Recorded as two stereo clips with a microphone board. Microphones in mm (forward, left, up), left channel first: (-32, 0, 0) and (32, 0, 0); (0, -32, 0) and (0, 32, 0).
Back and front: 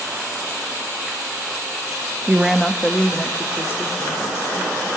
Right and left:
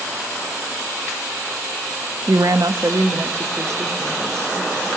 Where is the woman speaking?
65° left, 0.7 m; by 4.9 s 130° left, 2.5 m.